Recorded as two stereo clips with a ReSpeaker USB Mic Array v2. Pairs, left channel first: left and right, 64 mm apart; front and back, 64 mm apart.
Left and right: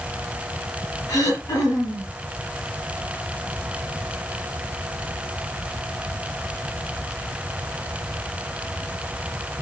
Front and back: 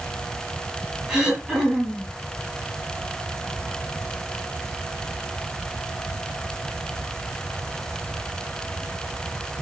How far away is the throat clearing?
About 9 m.